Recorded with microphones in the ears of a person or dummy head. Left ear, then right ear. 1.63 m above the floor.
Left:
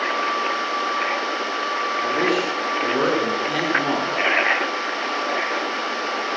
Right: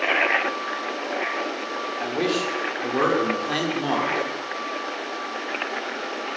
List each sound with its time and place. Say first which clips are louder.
2.0 s a man speaking: left 2 dB; 10° right (ahead or behind), 6 m